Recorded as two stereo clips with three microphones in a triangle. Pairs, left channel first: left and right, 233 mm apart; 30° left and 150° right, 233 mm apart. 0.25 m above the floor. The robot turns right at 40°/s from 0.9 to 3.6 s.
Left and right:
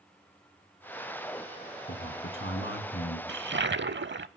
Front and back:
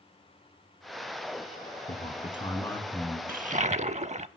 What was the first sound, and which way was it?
A man speaking, 75° left.